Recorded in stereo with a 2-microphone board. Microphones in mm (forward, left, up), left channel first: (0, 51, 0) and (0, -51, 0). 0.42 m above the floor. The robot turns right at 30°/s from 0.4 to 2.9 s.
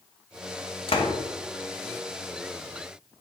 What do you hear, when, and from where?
0.9 s a door slam: 60° left (ahead or behind), 1.5 m; by 1.2 s 65° left (ahead or behind), 1.5 m